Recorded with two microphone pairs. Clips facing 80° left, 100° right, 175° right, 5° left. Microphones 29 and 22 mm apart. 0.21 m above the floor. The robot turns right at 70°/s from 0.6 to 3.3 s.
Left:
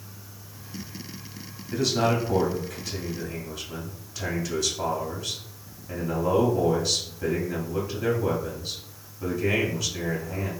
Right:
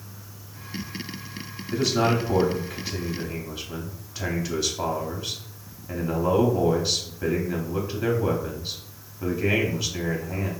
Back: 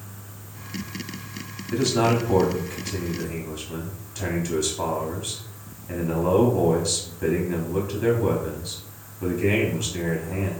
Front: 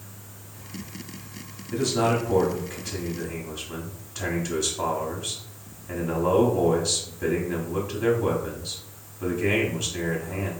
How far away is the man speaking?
About 1.1 m.